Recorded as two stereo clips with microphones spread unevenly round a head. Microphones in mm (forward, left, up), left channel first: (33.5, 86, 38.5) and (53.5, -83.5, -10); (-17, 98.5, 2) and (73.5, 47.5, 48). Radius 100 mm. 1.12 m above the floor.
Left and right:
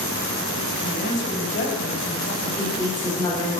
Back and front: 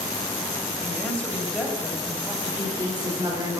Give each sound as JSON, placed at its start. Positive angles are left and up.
{"t": 0.8, "sound": "a woman speaking", "azimuth_deg": 70, "distance_m": 5.5}
{"t": 2.4, "sound": "a woman speaking", "azimuth_deg": 30, "distance_m": 6.0}